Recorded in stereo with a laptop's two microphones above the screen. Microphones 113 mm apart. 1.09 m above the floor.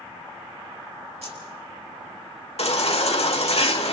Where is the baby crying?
65° left (ahead or behind), 1.4 m.